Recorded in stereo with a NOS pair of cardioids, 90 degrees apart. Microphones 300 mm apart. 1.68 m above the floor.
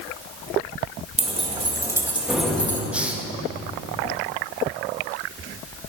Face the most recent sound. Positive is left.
turn(degrees=-5)